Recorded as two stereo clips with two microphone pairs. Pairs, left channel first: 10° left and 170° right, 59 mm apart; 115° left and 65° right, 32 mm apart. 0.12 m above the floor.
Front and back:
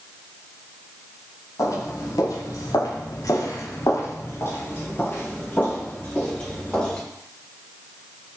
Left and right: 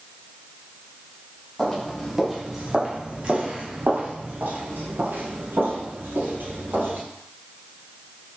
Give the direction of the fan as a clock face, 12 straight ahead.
I don't hear a fan.